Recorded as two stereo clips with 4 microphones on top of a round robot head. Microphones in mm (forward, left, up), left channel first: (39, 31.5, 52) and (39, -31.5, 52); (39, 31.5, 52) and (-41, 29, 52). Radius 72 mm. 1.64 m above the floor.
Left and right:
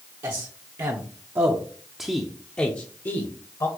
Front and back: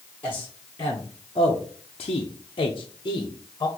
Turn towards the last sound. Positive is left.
turn(degrees=55)